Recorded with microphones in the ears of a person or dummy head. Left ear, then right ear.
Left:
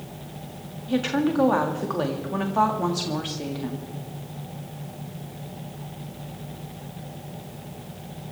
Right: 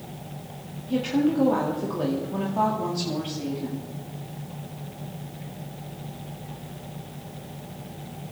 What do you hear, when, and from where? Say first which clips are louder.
0.9 s a woman speaking: even; 50° left (ahead or behind), 2 m